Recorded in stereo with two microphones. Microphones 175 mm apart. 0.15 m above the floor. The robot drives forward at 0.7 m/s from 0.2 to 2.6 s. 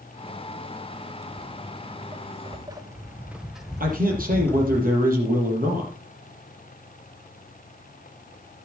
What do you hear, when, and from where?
1.3 s footsteps: 30° right (ahead or behind), 2 m; by 4.8 s 15° left (ahead or behind), 1.8 m
3.8 s a man speaking: 55° right (ahead or behind), 5.5 m